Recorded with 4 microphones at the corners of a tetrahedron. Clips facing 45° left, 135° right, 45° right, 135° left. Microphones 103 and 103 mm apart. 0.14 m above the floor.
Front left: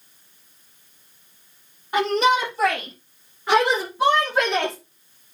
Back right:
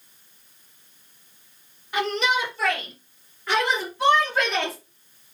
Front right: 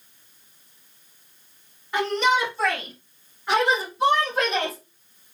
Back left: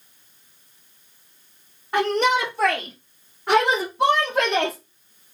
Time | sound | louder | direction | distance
1.9 | a shout | front left 5 dB, back left 2 dB | 95° left | 4 m